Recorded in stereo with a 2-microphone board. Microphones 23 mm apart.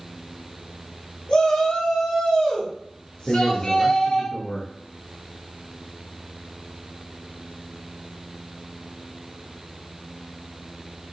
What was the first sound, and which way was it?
A shout, 50° left (ahead or behind).